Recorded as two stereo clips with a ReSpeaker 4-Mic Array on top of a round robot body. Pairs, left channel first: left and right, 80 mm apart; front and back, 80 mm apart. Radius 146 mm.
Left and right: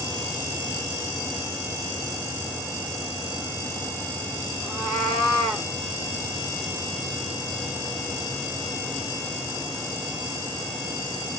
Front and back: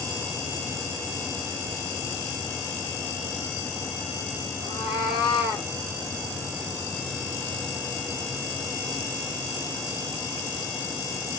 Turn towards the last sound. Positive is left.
turn(degrees=15)